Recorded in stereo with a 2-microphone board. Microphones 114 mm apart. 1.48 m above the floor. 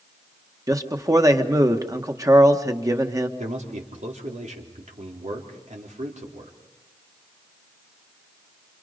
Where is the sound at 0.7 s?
30° right (ahead or behind), 1.7 m.